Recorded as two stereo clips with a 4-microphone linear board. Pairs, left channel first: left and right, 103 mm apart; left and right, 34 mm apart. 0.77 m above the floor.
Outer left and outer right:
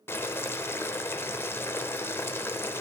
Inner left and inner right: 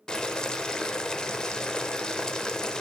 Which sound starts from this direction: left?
Boiling, at 0.1 s.